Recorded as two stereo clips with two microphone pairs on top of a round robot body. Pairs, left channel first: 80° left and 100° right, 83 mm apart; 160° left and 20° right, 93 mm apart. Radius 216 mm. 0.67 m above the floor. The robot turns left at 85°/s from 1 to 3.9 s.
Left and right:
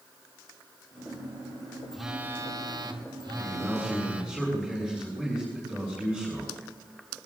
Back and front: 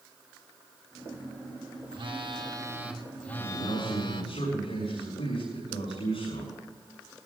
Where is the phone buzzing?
5° right, 1.9 m; by 4.3 s 175° right, 1.9 m.